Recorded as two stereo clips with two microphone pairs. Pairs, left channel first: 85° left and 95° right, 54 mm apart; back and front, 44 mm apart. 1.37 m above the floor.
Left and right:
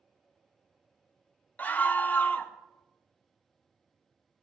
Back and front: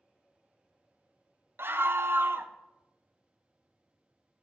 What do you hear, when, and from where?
1.6 s a scream: 30° left, 0.6 m